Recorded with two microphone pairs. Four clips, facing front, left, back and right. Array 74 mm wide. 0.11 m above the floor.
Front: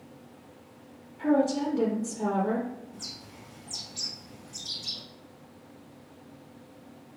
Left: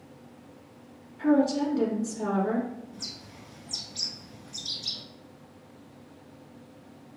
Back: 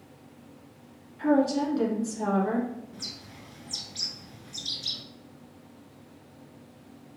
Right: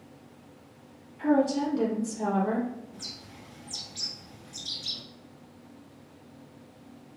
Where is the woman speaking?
155° left, 1.6 m.